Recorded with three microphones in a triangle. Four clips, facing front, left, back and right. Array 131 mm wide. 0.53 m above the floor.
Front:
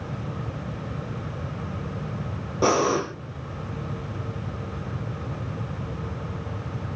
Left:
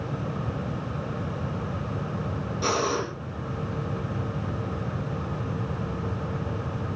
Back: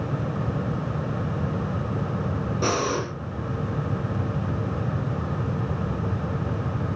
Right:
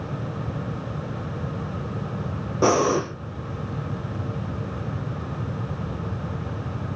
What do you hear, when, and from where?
2.6 s breathing: 60° right, 3.5 m